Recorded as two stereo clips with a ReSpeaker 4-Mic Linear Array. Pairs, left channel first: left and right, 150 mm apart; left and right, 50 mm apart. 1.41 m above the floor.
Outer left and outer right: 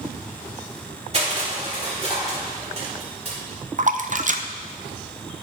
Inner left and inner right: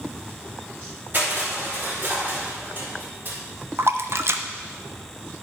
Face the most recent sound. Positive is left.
turn(degrees=-55)  # may be behind; listen again after turning